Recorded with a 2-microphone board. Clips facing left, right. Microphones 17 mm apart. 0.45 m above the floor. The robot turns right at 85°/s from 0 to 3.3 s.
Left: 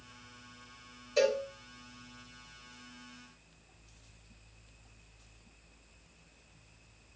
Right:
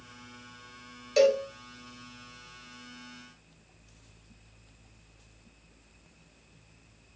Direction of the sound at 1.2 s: 75° right (ahead or behind).